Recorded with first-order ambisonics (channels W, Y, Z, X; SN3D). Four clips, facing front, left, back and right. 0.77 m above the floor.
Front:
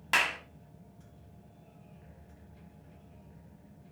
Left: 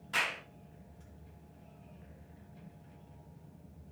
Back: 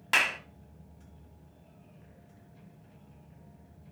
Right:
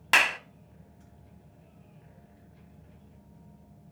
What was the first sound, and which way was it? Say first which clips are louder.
A clap: right 11 dB, back 2 dB; 95° right.